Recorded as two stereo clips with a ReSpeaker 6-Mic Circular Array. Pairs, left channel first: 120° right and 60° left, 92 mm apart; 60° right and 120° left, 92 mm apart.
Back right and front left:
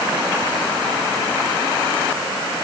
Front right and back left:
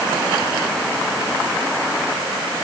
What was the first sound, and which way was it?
Only background noise.